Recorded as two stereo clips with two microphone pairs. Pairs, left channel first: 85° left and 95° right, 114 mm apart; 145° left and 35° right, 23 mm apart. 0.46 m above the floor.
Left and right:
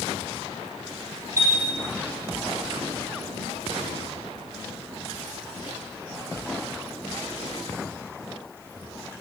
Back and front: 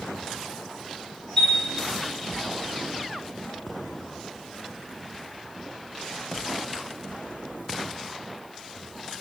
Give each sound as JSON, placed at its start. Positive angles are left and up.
{"t": 1.4, "sound": "a chime", "azimuth_deg": -150, "distance_m": 1.2}